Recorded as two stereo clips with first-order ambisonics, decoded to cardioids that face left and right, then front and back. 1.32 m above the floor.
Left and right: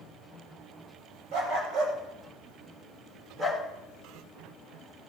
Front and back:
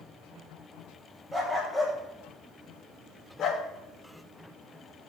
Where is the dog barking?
95° right, 2 m; by 3.6 s straight ahead, 1.2 m.